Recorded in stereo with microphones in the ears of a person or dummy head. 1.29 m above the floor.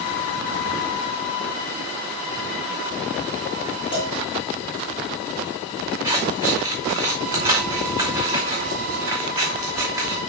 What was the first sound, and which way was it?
A cowbell, 20° left (ahead or behind).